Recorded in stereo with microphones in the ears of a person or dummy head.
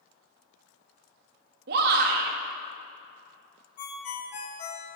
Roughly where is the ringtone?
Left.